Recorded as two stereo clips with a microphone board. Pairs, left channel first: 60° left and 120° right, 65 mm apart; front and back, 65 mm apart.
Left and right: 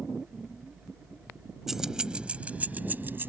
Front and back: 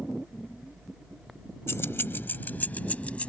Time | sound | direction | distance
1.7 | keys jangling | 40° right | ?